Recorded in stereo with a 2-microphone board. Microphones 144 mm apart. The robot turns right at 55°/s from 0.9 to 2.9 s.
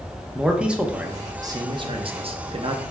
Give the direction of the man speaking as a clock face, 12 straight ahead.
6 o'clock.